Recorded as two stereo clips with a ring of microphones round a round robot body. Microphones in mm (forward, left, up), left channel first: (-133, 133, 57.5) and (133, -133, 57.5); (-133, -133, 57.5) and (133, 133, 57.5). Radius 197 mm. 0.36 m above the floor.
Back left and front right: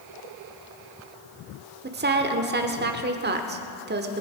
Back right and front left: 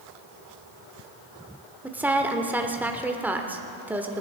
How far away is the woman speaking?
About 1.2 m.